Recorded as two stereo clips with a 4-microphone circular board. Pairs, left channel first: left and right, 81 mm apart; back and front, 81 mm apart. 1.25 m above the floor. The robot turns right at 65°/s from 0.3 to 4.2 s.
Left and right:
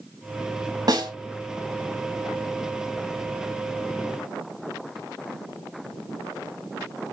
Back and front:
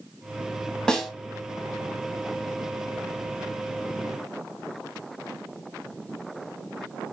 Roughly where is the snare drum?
Right.